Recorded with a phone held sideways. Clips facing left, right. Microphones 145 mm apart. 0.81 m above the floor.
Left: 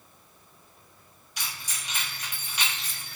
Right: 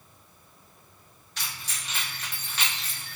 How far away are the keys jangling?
About 0.8 m.